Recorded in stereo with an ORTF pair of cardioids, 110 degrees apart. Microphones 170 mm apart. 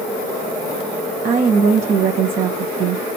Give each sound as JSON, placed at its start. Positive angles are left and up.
{"t": 1.2, "sound": "a woman speaking", "azimuth_deg": -50, "distance_m": 0.7}